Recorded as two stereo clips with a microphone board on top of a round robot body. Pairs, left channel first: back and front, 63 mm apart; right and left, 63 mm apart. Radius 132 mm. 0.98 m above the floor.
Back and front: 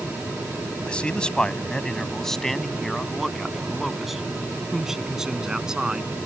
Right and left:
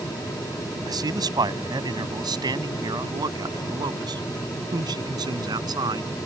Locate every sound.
0.8 s a man speaking: 105° left; by 6.1 s 80° left